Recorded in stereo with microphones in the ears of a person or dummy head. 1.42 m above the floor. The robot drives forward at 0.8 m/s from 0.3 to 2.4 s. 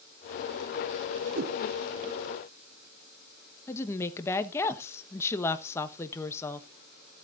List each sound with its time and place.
1.4 s a whoosh: 50° right (ahead or behind), 0.6 m; by 1.6 s 60° right (ahead or behind), 0.5 m
3.7 s a woman speaking: 10° left (ahead or behind), 1.1 m